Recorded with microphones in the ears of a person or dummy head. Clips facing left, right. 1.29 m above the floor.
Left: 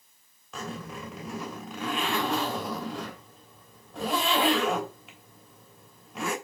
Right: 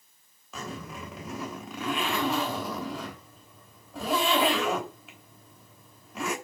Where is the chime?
No chime in this recording.